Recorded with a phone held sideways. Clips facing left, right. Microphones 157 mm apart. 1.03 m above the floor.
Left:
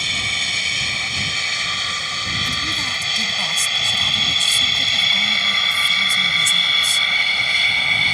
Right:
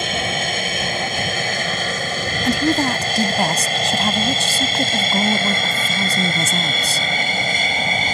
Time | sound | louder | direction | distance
0.0 | an aircraft | right 10 dB | 55° right (ahead or behind) | ?
2.4 | a woman speaking | right 14 dB | 80° right | ?